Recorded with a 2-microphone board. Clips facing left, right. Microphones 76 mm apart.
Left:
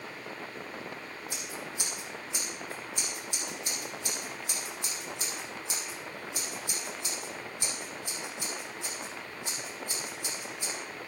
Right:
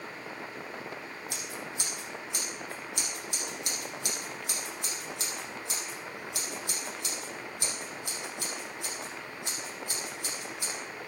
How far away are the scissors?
About 6 m.